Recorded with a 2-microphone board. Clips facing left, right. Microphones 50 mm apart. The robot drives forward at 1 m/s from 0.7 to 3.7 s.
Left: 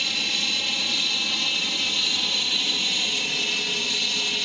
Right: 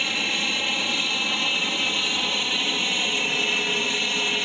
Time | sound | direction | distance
0.0 | an aircraft | 20° right (ahead or behind) | ?